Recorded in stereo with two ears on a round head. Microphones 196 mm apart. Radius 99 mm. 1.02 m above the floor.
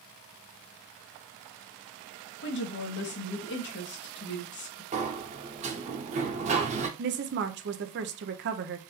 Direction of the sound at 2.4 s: 55° left (ahead or behind).